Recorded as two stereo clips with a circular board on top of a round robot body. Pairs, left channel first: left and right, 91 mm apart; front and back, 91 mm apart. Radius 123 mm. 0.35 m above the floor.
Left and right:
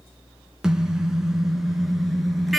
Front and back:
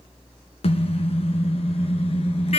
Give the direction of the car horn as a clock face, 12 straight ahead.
12 o'clock.